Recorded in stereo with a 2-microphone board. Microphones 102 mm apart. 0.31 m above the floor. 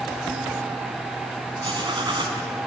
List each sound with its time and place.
1.6 s writing: 50° right (ahead or behind), 3 m